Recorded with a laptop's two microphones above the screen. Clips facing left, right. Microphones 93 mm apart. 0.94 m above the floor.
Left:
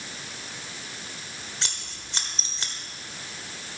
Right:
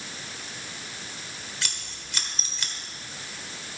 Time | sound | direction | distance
1.6 | scissors | 30° left (ahead or behind) | 1.2 m